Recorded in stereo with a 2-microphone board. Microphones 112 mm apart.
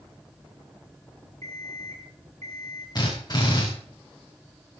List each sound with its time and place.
1.4 s an alarm clock: 85° right, 8.5 m
3.0 s a drill: 40° left (ahead or behind), 10 m